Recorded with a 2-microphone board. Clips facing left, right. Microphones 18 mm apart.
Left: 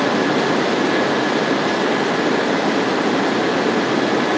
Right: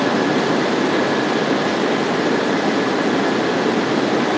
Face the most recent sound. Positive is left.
No sound to turn to.